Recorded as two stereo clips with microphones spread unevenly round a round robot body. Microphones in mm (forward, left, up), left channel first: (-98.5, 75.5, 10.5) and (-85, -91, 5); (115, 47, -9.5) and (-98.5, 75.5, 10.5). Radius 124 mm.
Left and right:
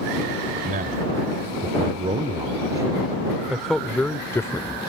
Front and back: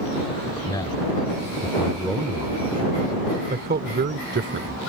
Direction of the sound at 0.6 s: 75° right.